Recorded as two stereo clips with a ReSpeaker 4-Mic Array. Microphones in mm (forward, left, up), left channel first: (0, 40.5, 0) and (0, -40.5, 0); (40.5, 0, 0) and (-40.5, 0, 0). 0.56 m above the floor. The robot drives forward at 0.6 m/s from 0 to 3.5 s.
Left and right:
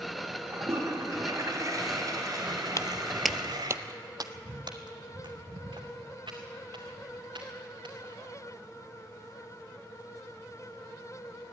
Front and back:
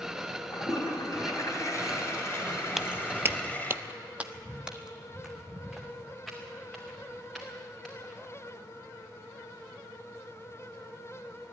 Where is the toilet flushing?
40° right, 3.5 m; by 3.8 s 70° right, 2.5 m.